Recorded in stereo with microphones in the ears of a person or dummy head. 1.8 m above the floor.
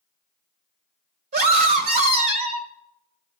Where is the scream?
45° right (ahead or behind), 1.3 m.